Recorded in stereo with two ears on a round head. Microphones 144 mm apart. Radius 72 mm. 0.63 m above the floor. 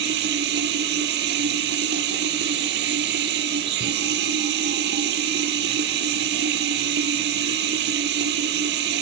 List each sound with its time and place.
0.0 s running water: 75° right (ahead or behind), 6.5 m